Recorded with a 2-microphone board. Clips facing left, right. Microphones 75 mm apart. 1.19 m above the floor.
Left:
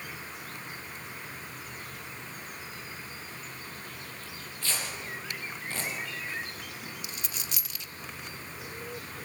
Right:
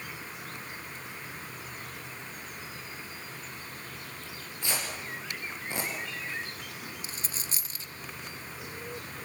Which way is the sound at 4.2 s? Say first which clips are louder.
Right 1 dB; 15° right (ahead or behind).